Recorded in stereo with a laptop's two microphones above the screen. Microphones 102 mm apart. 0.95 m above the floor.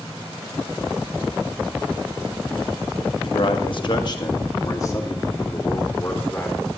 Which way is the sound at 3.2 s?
55° left (ahead or behind).